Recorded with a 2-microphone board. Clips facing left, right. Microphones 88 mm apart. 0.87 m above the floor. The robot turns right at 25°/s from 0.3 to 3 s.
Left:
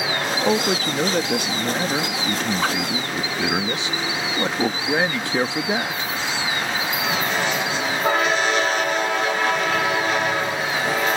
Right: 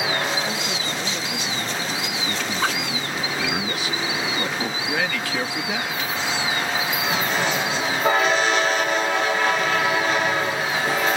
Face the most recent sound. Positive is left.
turn(degrees=145)